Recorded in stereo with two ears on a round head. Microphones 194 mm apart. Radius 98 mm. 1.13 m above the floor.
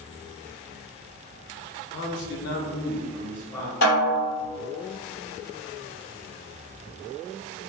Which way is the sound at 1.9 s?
50° left (ahead or behind).